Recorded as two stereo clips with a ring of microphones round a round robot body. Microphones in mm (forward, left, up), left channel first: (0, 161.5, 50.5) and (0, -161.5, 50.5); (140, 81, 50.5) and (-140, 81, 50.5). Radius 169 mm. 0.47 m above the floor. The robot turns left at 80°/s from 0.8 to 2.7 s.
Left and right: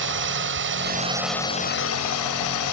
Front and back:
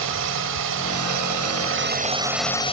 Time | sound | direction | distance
0.0 | a drone | 140° right | ?